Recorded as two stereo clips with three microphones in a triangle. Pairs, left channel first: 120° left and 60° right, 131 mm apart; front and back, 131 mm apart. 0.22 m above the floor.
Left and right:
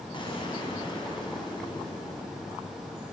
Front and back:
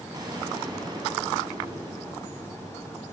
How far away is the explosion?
About 2 m.